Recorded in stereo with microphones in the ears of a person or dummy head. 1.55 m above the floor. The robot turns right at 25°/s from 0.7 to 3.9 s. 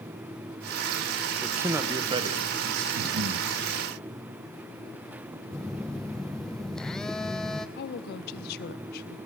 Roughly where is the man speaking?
Behind.